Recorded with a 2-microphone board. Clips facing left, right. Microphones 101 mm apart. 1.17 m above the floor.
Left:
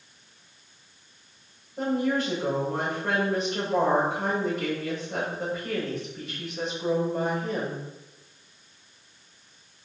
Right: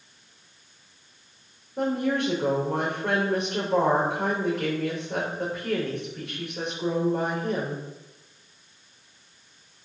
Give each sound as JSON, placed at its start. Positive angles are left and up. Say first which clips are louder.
{"t": 1.8, "sound": "a woman speaking", "louder": "right 1 dB", "side_deg": -70, "distance_m": 5.5}